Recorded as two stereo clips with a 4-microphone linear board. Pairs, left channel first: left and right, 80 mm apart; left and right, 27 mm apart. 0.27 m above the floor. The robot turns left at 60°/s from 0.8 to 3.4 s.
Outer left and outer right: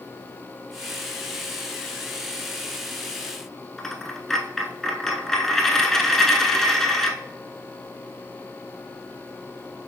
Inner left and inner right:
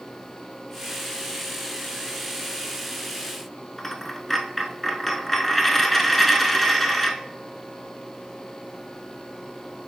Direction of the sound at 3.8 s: 5° left (ahead or behind).